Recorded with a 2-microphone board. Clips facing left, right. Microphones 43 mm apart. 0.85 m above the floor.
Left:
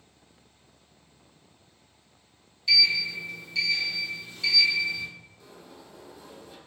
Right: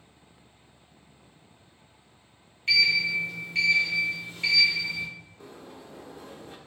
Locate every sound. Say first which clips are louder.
2.7 s a sliding door: right 1 dB; 45° right (ahead or behind), 1.2 m
5.4 s a sliding door: right 3 dB; 45° right (ahead or behind), 0.5 m